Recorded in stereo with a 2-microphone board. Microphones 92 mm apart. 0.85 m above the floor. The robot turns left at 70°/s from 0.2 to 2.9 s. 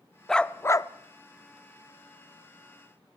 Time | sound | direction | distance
0.3 | a dog barking | 175° left | 0.5 m